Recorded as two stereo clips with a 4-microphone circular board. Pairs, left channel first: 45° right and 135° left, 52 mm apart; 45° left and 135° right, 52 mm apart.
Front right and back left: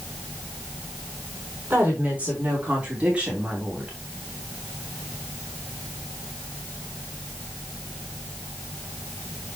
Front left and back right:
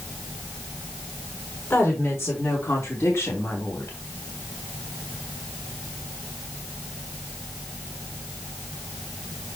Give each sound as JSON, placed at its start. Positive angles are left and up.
{"t": 1.7, "sound": "a woman speaking", "azimuth_deg": 75, "distance_m": 4.5}